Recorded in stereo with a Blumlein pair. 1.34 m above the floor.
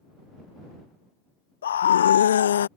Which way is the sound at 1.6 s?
65° left.